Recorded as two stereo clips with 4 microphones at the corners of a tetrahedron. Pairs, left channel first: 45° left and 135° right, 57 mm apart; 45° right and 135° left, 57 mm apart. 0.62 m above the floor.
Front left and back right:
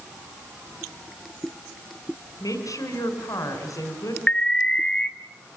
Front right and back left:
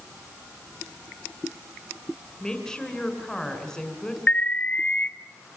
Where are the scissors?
I don't hear scissors.